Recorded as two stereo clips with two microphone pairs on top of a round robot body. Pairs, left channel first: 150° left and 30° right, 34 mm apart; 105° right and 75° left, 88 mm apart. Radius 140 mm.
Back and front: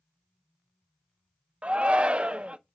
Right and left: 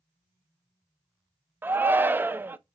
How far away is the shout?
About 0.7 m.